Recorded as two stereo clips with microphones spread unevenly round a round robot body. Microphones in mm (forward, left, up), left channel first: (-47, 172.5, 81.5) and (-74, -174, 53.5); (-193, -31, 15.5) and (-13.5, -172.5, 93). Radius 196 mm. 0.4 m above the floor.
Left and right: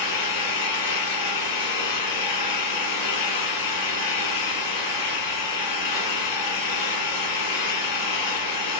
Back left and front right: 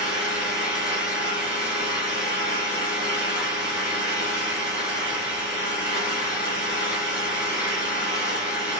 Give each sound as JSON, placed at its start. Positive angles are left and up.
{"t": 0.0, "sound": "an engine running", "azimuth_deg": 45, "distance_m": 7.0}